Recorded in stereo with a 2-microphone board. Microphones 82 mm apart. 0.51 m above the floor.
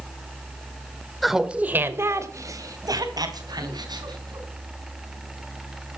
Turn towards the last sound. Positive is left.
turn(degrees=-60)  # may be behind; listen again after turning